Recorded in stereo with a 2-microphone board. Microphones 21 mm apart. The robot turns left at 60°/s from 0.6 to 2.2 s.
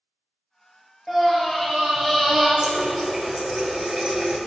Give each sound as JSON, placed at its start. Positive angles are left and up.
{"t": 1.1, "sound": "a scream", "azimuth_deg": 25, "distance_m": 1.6}
{"t": 2.6, "sound": "a running tap", "side_deg": -30, "distance_m": 1.2}